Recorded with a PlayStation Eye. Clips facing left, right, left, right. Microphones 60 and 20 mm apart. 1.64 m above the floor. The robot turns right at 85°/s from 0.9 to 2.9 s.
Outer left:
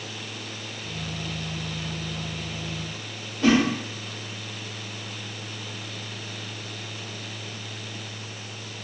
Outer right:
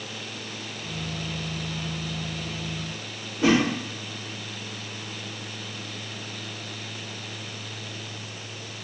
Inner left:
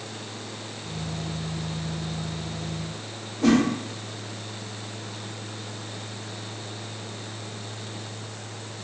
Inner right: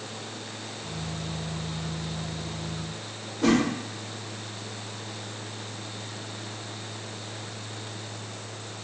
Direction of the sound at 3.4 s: 20° right (ahead or behind).